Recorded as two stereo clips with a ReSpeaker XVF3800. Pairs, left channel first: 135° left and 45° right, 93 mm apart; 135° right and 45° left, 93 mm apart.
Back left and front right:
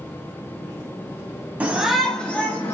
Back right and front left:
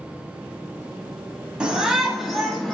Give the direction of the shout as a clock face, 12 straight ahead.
12 o'clock.